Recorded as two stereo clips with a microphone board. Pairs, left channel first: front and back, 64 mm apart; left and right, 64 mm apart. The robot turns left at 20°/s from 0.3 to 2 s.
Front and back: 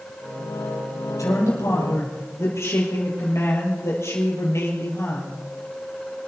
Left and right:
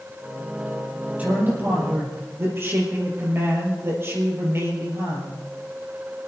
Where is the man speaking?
20° right, 5 m; by 5.4 s 40° right, 5 m.